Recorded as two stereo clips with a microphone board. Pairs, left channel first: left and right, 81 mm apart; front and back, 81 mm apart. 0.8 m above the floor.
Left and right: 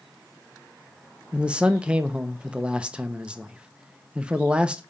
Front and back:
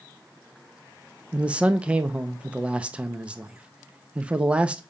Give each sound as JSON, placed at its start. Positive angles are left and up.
{"t": 1.3, "sound": "a man speaking", "azimuth_deg": -140, "distance_m": 0.7}